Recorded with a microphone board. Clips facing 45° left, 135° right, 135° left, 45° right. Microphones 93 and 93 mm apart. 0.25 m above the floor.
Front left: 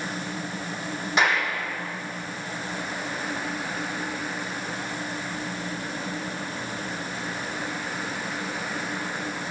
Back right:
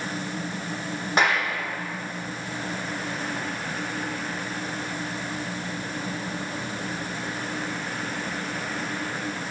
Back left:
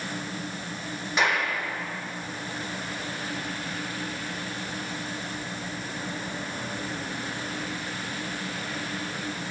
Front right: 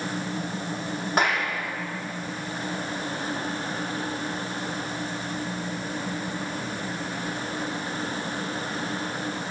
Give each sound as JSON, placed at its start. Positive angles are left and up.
{"t": 1.2, "sound": "a clap", "azimuth_deg": -90, "distance_m": 7.0}